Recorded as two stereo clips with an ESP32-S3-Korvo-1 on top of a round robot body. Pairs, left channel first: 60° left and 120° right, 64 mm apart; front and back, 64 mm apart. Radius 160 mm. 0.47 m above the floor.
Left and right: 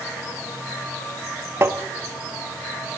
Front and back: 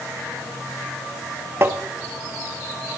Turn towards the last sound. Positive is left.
turn(degrees=-150)